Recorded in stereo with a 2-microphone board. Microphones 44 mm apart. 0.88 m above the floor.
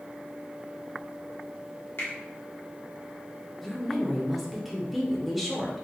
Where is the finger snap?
60° left (ahead or behind), 1.3 m.